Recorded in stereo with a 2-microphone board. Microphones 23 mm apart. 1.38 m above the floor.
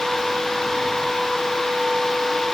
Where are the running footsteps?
No running footsteps in this recording.